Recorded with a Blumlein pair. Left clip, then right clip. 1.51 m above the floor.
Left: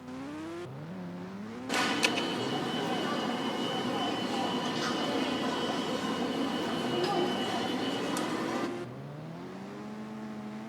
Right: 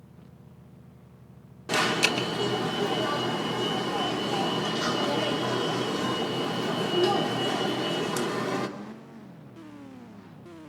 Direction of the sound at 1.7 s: 40° right.